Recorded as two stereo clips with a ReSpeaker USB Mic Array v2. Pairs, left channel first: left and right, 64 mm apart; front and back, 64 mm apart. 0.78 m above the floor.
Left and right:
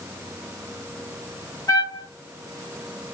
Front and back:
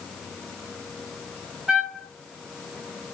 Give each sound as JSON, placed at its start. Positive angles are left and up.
{"t": 1.7, "sound": "a trumpet", "azimuth_deg": 100, "distance_m": 1.2}